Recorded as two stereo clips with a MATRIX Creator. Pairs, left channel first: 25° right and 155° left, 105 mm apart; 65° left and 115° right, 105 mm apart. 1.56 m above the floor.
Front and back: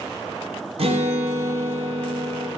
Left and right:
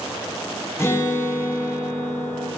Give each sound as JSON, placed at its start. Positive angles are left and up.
{"t": 0.8, "sound": "a guitar", "azimuth_deg": 135, "distance_m": 1.0}